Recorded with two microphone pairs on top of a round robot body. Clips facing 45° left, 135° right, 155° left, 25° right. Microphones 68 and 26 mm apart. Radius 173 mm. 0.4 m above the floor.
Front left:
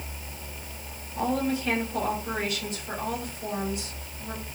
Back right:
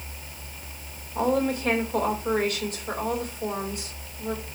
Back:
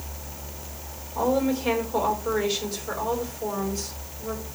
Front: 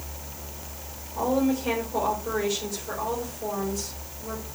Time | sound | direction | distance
1.1 | a woman speaking | 160° right | 4 m